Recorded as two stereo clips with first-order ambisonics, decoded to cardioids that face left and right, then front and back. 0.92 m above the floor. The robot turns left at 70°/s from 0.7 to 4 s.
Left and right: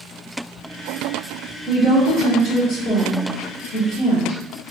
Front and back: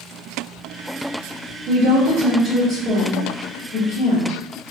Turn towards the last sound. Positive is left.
turn(degrees=10)